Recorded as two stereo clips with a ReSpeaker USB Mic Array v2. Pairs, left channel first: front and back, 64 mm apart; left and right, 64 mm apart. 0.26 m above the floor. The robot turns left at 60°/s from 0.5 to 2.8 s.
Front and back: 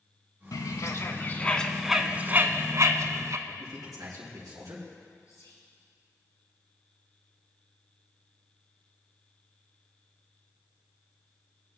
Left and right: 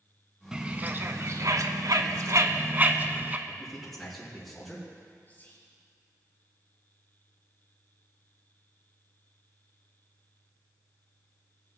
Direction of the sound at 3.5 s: 175° left.